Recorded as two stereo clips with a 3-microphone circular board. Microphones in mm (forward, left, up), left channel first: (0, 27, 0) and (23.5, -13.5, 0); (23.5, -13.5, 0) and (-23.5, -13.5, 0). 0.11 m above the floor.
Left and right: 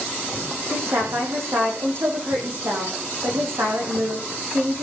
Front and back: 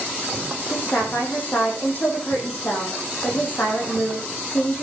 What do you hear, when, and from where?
0.7 s a woman speaking: 45° right, 5.5 m